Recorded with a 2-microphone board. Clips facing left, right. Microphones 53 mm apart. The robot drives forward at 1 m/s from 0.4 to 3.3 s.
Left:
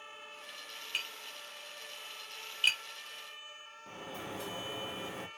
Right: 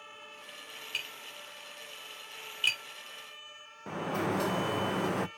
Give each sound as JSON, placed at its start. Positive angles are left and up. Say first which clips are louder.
{"t": 0.9, "sound": "tapping", "louder": "even", "side_deg": 0, "distance_m": 4.5}
{"t": 3.9, "sound": "a sliding door", "louder": "right 12 dB", "side_deg": -70, "distance_m": 0.6}